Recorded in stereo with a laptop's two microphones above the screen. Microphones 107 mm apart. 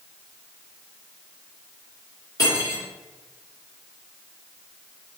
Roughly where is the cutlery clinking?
Left.